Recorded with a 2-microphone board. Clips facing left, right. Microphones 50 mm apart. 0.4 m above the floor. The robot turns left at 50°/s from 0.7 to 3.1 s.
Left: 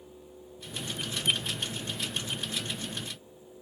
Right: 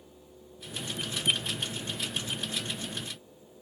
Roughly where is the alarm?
I don't hear an alarm.